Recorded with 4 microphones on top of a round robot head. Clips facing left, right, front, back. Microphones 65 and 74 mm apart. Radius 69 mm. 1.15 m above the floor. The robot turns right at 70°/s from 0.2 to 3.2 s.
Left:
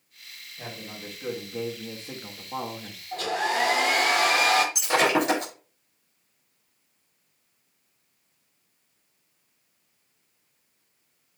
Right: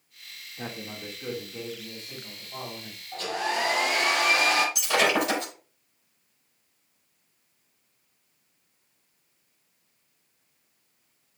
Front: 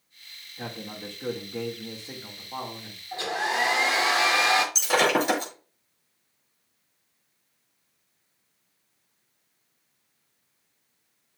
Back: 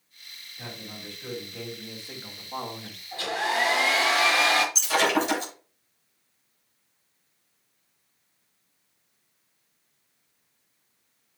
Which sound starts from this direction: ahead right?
A man speaking, at 0.6 s.